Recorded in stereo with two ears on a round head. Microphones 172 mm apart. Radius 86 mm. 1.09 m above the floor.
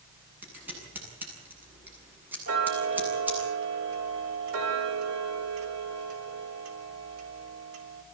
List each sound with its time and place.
0.4 s scissors: 10° right (ahead or behind), 9 m
2.5 s ticking: 80° right, 4.5 m